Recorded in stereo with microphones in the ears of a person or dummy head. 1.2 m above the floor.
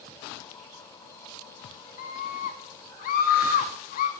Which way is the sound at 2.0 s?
50° left (ahead or behind).